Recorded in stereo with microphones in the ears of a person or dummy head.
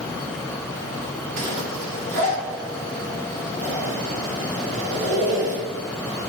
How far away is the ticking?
I don't hear ticking.